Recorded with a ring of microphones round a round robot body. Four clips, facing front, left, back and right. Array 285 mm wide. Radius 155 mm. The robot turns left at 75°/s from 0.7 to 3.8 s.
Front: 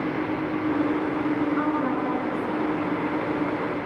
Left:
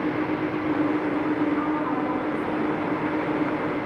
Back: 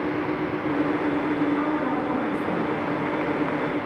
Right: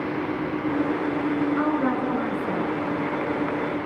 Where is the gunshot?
No gunshot in this recording.